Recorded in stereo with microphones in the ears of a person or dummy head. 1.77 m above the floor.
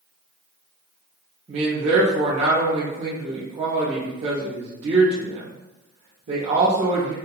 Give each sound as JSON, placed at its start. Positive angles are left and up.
{"t": 1.5, "sound": "a man speaking", "side_deg": -35, "distance_m": 0.7}